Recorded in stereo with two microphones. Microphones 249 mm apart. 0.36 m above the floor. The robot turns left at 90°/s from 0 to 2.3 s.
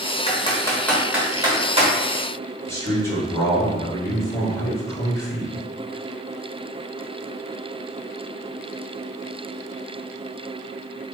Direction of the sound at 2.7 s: 10° left (ahead or behind).